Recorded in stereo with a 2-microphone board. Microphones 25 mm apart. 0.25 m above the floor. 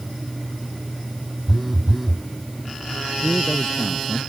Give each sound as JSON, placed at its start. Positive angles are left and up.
{"t": 1.5, "sound": "a phone buzzing", "side_deg": 0}
{"t": 3.2, "sound": "a man speaking", "side_deg": 10}